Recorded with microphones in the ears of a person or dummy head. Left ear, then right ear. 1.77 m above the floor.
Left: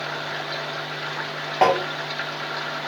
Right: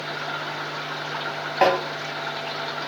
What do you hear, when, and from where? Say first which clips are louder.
1.6 s tapping: left 1 dB; centre (ahead or behind), 0.9 m